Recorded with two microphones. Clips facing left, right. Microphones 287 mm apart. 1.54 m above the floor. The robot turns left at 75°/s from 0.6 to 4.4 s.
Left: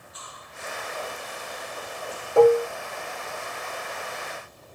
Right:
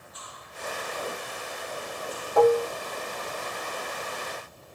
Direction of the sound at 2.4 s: 25° left (ahead or behind).